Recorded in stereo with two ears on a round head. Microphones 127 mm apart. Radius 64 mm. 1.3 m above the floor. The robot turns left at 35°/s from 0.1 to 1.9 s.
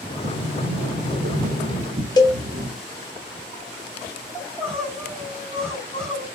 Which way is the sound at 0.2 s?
65° right.